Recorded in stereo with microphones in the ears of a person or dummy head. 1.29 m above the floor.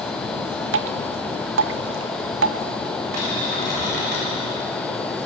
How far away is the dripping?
About 0.6 m.